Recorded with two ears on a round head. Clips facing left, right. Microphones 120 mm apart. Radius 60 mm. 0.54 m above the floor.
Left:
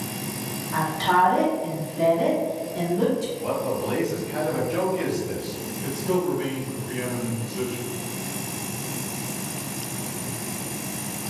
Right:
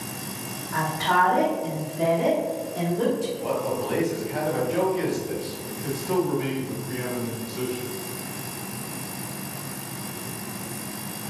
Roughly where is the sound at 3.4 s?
Centre.